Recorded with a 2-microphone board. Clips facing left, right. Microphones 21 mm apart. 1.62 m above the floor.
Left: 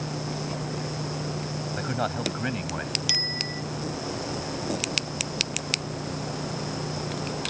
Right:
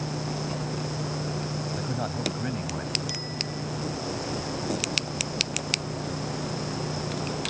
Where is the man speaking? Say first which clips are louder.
Left 2 dB; 40° left (ahead or behind); by 3.0 s 35° left (ahead or behind).